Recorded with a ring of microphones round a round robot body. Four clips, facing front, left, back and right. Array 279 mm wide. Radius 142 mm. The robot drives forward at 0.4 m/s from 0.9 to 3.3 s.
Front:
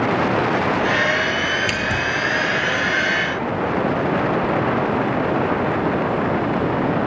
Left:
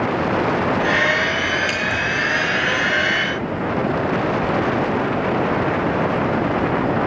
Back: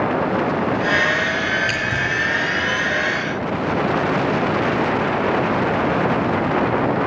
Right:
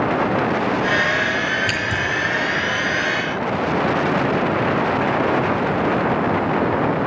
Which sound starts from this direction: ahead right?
Scissors, at 1.7 s.